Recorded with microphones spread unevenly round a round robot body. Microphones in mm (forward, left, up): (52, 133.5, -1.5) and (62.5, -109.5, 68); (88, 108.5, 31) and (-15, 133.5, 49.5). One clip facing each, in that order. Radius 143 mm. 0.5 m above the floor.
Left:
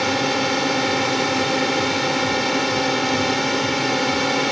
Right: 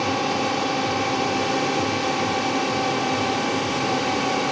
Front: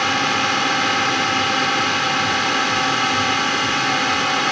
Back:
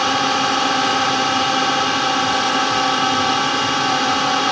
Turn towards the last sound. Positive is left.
turn(degrees=105)